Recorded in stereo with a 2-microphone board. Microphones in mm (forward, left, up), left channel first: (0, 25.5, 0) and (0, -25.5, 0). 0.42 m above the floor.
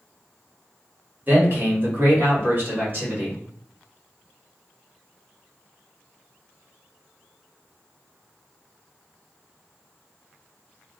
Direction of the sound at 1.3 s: 40° right (ahead or behind).